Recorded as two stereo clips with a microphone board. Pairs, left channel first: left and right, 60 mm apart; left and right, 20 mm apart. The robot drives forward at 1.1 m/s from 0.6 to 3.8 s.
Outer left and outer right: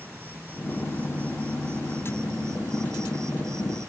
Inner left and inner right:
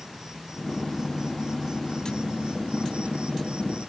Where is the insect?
35° right (ahead or behind); by 3.9 s 60° right (ahead or behind).